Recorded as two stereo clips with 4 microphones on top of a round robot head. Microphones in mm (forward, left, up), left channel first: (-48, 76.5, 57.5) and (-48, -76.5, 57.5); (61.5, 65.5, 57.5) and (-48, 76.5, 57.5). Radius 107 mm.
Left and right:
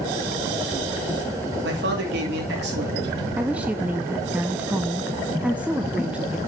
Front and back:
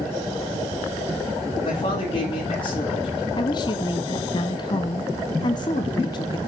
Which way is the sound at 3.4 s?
10° right.